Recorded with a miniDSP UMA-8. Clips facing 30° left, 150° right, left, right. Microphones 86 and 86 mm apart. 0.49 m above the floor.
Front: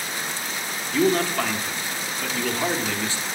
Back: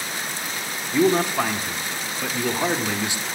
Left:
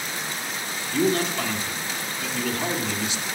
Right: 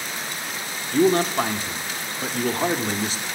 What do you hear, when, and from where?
0.9 s a man speaking: 85° right, 0.8 m